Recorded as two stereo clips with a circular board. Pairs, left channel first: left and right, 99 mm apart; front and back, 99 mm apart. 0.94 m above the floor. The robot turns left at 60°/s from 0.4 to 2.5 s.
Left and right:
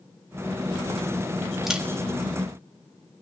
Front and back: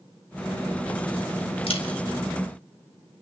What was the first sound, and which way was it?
A camera shutter, 5° right.